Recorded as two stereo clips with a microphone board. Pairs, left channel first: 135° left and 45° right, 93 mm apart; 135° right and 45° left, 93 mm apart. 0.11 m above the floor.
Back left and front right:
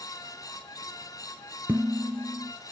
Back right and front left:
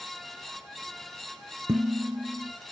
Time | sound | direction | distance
1.7 | dishes clattering | 20° left | 1.0 m